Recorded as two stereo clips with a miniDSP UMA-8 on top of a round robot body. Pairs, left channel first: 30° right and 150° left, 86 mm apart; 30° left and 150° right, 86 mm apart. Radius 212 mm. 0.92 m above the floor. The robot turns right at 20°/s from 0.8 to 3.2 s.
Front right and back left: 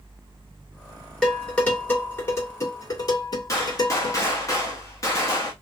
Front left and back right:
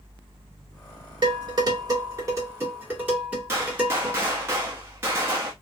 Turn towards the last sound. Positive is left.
turn(degrees=-85)